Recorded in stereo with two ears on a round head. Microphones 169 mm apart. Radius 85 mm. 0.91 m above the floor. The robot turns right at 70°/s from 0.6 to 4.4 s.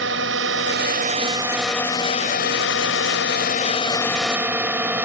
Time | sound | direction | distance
0.0 | a drone | 75° right | ?